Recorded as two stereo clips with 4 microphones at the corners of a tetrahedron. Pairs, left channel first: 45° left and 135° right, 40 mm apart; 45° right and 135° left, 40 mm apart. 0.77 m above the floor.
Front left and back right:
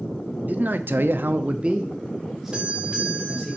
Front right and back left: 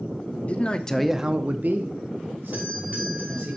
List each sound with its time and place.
0.5 s a man speaking: 95° right, 1.1 m; by 3.5 s 130° left, 3 m
2.5 s a doorbell: 160° left, 3 m